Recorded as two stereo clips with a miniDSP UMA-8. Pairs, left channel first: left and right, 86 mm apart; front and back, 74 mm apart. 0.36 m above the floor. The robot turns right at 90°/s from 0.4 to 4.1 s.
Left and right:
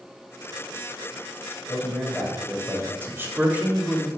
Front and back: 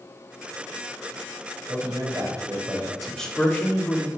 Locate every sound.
1.7 s a man speaking: 140° left, 2.0 m; by 2.9 s 110° right, 2.0 m
3.0 s a man speaking: 90° right, 1.4 m; by 4.1 s 5° left, 1.4 m